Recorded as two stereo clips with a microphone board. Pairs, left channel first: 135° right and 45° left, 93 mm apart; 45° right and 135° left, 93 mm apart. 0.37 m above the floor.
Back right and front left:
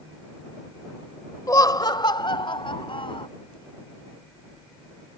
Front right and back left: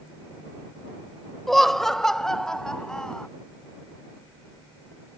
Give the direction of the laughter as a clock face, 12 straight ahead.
4 o'clock.